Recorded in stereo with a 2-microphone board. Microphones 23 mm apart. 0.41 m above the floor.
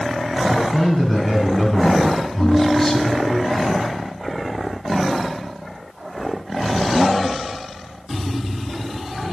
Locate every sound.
0.5 s a man speaking: 10° left (ahead or behind), 4 m; by 3.4 s 25° left (ahead or behind), 2 m
2.4 s a ringtone: 35° left (ahead or behind), 7 m